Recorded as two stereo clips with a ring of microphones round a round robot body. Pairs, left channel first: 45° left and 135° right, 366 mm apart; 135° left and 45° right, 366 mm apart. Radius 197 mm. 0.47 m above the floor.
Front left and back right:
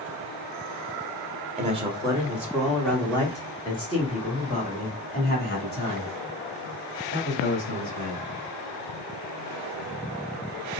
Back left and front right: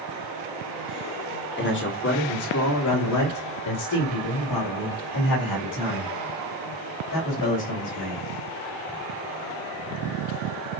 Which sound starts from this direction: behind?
A man speaking, at 1.6 s.